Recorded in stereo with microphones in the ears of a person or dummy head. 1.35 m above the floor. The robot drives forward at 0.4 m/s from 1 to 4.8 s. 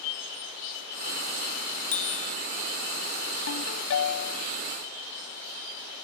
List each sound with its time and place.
1.9 s a bicycle bell: 35° left (ahead or behind)
3.5 s a ringtone: 80° left; by 4.5 s 75° left (ahead or behind)